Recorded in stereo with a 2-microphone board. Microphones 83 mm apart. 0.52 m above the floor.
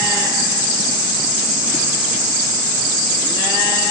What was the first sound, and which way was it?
Only background noise.